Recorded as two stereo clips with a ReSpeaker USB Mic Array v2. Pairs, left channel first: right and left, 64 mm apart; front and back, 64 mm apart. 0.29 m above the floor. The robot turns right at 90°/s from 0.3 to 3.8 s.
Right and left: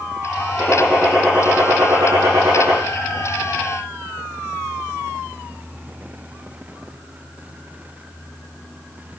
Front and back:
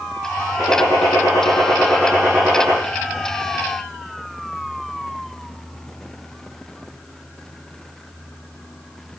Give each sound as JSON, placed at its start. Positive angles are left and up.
{"t": 0.6, "sound": "a gunshot", "azimuth_deg": -40, "distance_m": 7.5}